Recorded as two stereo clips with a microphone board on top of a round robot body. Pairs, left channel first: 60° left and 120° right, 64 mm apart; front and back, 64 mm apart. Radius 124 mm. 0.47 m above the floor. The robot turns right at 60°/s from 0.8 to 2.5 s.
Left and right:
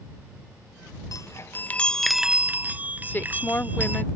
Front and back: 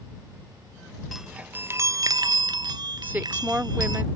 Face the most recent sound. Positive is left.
turn(degrees=120)